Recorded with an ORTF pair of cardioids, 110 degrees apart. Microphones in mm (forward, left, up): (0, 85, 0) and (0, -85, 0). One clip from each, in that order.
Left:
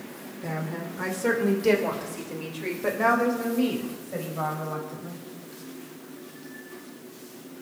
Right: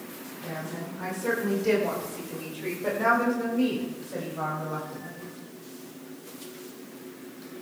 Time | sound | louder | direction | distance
0.4 | a woman speaking | left 3 dB | 50° left | 2.5 m